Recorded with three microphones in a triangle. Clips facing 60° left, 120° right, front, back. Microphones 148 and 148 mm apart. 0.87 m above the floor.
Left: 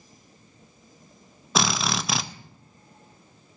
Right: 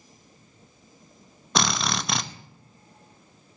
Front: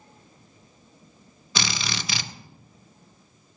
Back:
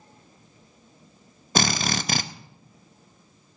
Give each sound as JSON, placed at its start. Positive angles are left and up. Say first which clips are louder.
{"t": 1.6, "sound": "a drill", "louder": "left 1 dB, back 6 dB", "azimuth_deg": 150, "distance_m": 0.6}